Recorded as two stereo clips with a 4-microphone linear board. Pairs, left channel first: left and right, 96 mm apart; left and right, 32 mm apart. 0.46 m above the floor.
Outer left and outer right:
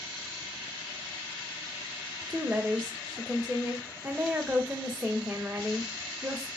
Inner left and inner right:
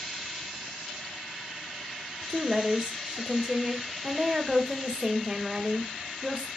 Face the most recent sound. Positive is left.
turn(degrees=-15)  # may be behind; listen again after turning